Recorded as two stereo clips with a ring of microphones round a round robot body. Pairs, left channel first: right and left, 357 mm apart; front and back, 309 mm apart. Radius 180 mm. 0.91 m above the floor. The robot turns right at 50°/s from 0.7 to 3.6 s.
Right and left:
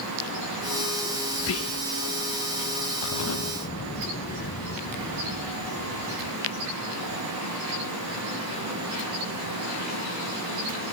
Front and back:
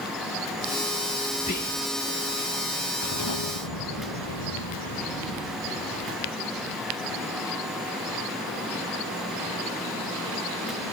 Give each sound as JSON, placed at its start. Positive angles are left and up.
{"t": 1.4, "sound": "whispering", "azimuth_deg": -65}
{"t": 3.0, "sound": "an explosion", "azimuth_deg": -55}